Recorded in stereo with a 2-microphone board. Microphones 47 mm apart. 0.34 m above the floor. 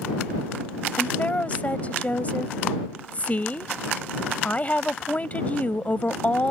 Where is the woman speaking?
30° left (ahead or behind).